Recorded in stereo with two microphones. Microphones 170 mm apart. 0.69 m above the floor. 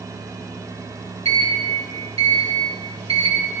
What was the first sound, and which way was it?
A sliding door, 35° right (ahead or behind).